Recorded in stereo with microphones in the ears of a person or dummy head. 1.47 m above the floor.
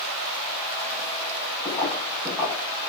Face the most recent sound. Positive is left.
turn(degrees=10)  # may be behind; listen again after turning